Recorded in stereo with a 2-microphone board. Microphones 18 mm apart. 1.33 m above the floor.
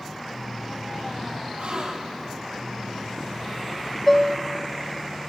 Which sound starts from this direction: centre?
Dishes clattering, at 4.1 s.